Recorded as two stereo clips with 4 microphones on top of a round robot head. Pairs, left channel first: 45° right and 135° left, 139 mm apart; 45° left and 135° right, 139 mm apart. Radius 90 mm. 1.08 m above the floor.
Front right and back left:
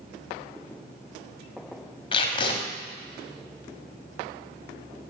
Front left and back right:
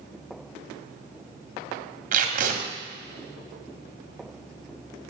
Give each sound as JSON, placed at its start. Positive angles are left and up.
{"t": 2.1, "sound": "tape being pulled", "azimuth_deg": -100, "distance_m": 1.9}